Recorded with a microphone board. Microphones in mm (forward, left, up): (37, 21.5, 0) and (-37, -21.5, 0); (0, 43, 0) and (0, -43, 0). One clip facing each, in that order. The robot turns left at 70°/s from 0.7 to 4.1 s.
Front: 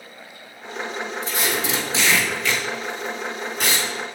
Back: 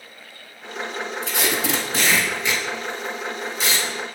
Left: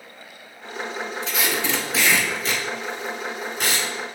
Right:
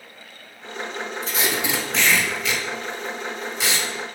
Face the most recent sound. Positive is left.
turn(degrees=25)